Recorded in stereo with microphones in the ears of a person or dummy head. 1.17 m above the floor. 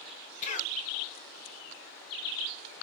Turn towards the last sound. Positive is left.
turn(degrees=40)  # may be behind; listen again after turning